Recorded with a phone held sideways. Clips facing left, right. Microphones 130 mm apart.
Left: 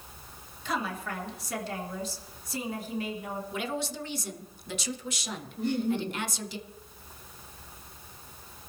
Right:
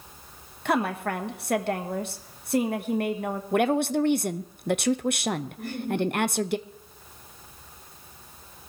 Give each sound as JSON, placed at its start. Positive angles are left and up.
{"t": 0.7, "sound": "a woman speaking", "side_deg": -60, "distance_m": 1.4}
{"t": 3.5, "sound": "a woman speaking", "side_deg": -60, "distance_m": 0.6}
{"t": 5.6, "sound": "laughter", "side_deg": 20, "distance_m": 2.5}